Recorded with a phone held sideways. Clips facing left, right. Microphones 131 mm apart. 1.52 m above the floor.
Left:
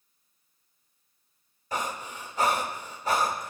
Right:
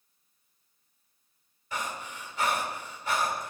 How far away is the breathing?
About 2 m.